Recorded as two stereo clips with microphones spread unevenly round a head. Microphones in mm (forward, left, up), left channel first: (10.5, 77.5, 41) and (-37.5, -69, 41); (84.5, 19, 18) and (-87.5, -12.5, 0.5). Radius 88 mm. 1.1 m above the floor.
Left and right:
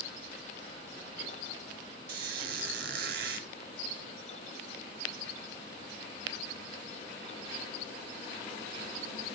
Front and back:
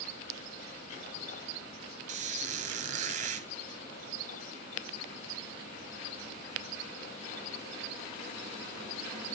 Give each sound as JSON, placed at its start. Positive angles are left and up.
{"t": 2.1, "sound": "a squeak", "azimuth_deg": -125, "distance_m": 1.5}